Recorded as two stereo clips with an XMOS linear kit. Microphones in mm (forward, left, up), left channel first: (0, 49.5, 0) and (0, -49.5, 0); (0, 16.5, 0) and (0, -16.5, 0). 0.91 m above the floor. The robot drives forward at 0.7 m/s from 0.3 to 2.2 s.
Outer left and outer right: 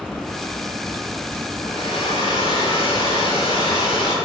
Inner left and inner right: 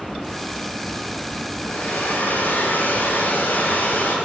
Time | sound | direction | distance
1.6 | a hair dryer | 75° left (ahead or behind) | 6.5 m